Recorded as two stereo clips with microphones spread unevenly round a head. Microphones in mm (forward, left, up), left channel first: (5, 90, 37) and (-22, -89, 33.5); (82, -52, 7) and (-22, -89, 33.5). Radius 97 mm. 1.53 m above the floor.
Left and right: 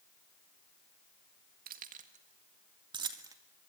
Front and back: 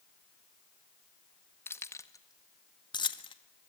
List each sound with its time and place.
1.7 s keys jangling: 55° right, 1.7 m; by 3.3 s 25° right, 1.9 m